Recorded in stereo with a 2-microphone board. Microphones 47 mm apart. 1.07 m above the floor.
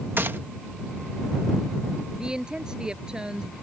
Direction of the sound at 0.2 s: 55° right (ahead or behind).